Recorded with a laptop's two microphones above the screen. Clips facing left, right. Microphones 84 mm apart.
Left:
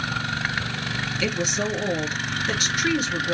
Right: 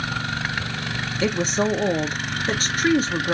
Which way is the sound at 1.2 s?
35° right (ahead or behind).